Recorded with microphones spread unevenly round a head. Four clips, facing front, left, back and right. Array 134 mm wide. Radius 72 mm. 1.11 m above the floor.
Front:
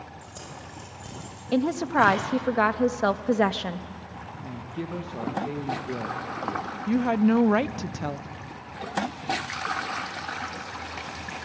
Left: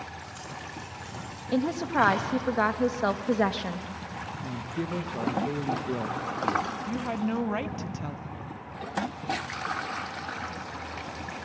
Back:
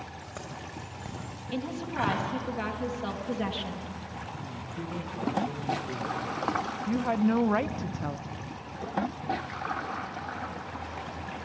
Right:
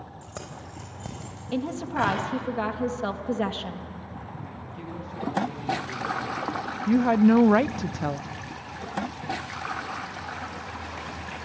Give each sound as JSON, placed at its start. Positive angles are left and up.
{"t": 0.2, "sound": "keys jangling", "azimuth_deg": -100, "distance_m": 4.5}
{"t": 1.5, "sound": "a woman speaking", "azimuth_deg": 15, "distance_m": 1.3}
{"t": 4.5, "sound": "a woman speaking", "azimuth_deg": 55, "distance_m": 1.4}
{"t": 6.9, "sound": "a woman speaking", "azimuth_deg": -55, "distance_m": 0.6}